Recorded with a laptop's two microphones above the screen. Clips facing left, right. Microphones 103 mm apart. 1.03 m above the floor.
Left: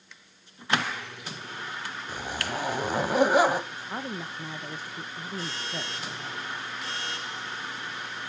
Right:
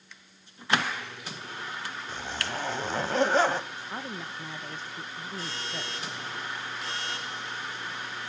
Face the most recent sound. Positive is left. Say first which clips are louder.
# left 2 dB
turn(degrees=10)  # may be behind; listen again after turning